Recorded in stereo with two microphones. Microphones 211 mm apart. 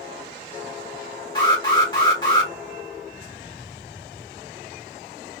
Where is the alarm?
20° left (ahead or behind), 2.5 m.